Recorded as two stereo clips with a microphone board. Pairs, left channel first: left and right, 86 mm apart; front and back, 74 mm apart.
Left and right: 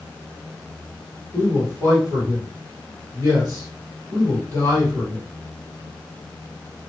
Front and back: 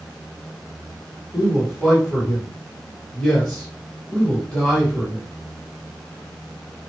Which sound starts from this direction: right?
A man speaking, at 1.3 s.